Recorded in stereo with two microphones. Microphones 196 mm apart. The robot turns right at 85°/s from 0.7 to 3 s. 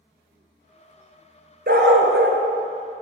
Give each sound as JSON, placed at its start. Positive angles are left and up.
{"t": 1.7, "sound": "a dog barking", "azimuth_deg": -125, "distance_m": 1.0}